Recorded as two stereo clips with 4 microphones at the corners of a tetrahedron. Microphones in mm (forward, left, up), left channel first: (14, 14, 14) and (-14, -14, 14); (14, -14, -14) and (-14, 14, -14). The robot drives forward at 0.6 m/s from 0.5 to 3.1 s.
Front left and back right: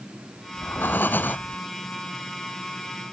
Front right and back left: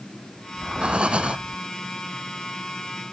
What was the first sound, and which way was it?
Breathing, 75° left.